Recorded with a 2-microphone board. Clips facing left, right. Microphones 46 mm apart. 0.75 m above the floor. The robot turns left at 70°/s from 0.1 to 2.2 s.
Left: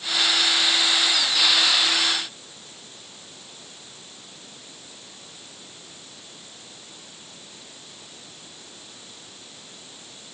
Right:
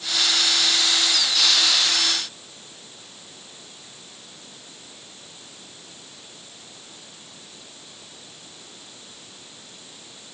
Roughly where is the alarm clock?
I don't hear an alarm clock.